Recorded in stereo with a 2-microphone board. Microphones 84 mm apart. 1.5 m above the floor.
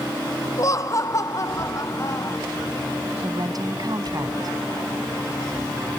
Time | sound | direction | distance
0.6 | laughter | 40° left (ahead or behind) | ?
3.2 | a woman speaking | 50° right (ahead or behind) | ?